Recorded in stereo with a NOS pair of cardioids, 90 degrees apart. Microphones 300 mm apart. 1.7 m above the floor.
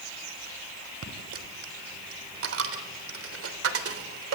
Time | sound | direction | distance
1.0 | a dropped coin | 50° right | 3.5 m